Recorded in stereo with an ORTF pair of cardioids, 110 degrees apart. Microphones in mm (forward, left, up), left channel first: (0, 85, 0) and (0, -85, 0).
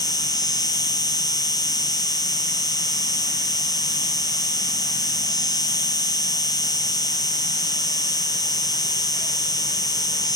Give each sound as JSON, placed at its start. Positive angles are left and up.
{"t": 0.0, "sound": "an insect", "azimuth_deg": 25}